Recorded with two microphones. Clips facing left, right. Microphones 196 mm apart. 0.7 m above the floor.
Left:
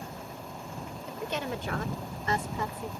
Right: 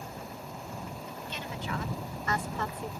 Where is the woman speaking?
75° left (ahead or behind); by 2.9 s centre (ahead or behind).